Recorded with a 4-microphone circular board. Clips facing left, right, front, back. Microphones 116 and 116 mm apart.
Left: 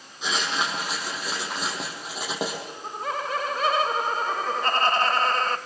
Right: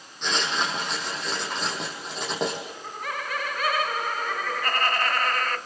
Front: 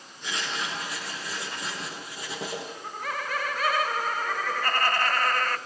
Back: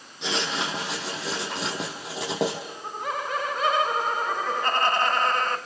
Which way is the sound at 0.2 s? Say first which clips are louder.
Even, back 5 dB; 175° left.